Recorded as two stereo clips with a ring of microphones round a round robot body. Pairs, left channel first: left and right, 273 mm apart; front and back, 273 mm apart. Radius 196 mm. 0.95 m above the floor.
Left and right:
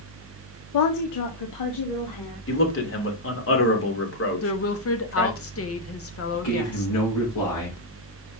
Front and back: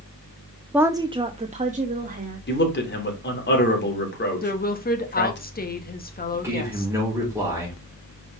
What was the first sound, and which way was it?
A woman speaking, 95° left.